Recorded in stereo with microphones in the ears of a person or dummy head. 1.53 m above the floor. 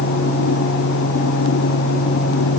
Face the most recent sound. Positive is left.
No sound to turn to.